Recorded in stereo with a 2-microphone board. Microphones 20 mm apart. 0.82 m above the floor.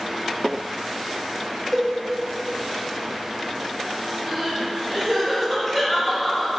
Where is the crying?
15° left (ahead or behind), 1.4 m.